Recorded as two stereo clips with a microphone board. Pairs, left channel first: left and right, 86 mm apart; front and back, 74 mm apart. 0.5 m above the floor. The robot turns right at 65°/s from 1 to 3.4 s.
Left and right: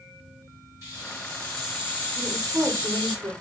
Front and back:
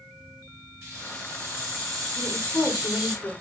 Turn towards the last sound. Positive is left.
turn(degrees=-35)